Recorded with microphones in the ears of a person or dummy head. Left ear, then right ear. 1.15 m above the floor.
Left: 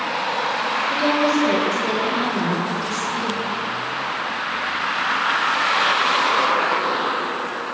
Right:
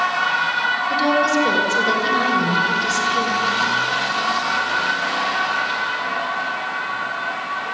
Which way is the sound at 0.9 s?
55° right (ahead or behind).